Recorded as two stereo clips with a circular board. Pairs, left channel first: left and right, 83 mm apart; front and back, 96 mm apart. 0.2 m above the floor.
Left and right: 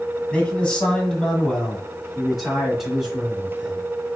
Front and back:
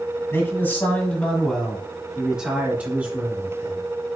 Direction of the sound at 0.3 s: 30° left.